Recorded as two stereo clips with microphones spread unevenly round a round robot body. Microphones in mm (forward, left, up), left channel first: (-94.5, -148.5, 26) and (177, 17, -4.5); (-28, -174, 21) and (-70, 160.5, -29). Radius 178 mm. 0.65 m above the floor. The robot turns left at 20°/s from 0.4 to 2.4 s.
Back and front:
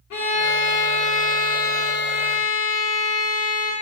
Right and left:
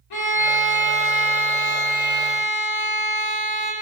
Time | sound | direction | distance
0.1 | a violin | 100° right | 1.2 m